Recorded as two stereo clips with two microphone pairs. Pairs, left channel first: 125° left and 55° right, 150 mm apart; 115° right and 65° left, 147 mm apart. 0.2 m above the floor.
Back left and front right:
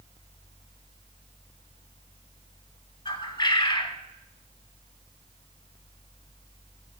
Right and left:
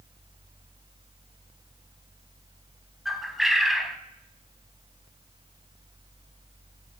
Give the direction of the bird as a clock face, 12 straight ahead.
7 o'clock.